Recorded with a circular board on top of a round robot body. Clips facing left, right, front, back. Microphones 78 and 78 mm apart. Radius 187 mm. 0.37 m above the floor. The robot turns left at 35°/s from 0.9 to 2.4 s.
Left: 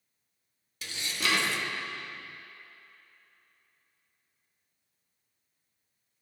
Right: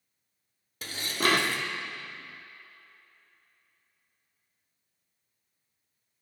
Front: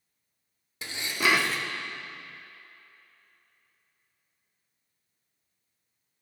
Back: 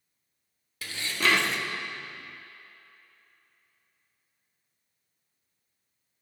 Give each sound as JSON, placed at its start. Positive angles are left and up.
{"t": 0.8, "sound": "dishes clattering", "azimuth_deg": -65, "distance_m": 0.8}